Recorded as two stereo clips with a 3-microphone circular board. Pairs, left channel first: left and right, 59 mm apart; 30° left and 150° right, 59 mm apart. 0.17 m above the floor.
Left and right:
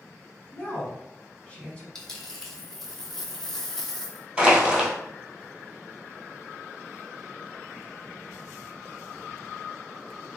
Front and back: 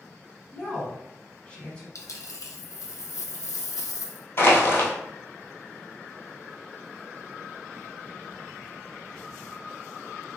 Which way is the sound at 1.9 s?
10° left.